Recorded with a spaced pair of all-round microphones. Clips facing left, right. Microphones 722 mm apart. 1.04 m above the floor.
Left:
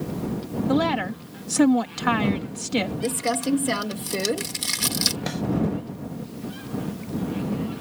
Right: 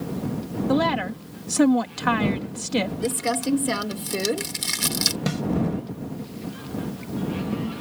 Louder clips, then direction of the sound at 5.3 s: Right 3 dB; 55° right (ahead or behind).